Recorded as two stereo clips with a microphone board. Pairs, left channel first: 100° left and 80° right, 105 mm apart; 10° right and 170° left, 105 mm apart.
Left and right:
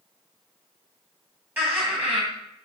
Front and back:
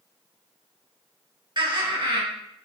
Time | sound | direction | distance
1.6 | laughter | 150° right | 2.5 m